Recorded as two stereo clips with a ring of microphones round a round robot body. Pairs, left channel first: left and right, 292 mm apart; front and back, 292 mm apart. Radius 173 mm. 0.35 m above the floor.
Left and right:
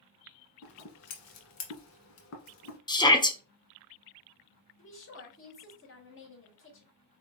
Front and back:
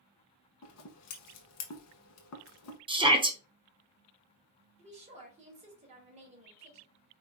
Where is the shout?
140° left, 1.0 m.